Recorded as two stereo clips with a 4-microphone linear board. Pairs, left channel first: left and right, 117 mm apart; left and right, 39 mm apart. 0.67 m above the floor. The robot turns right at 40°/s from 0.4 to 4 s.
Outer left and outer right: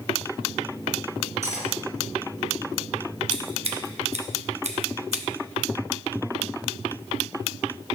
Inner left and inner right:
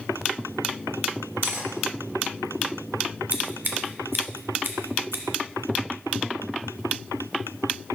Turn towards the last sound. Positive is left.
turn(degrees=-70)  # may be behind; listen again after turning